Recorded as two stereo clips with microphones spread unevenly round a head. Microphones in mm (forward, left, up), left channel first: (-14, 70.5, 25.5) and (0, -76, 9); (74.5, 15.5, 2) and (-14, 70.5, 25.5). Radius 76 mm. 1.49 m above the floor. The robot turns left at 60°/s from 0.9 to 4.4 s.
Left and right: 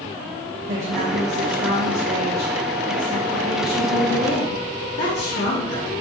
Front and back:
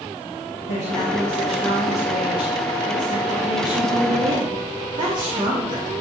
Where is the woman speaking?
40° right, 2 m; by 5.9 s 110° left, 2 m.